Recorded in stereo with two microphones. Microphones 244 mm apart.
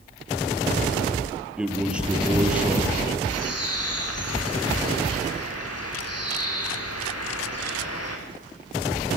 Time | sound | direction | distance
1.6 | a man speaking | 5° right (ahead or behind) | 3.5 m
3.3 | a bird | 80° left | 6.5 m